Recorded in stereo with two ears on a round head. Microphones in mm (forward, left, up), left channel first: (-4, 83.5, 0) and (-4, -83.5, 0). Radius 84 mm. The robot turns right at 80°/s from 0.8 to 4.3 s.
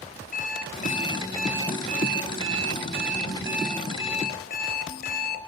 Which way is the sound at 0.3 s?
135° left.